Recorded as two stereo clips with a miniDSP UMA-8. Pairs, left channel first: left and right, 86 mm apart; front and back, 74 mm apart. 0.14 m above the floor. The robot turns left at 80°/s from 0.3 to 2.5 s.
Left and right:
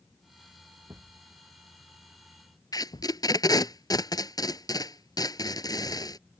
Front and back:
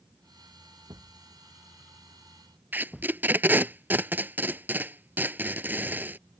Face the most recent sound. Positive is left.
turn(degrees=120)